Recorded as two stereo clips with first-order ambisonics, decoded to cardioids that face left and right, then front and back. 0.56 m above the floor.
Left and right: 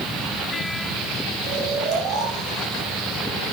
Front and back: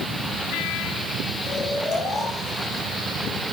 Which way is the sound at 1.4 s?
70° right.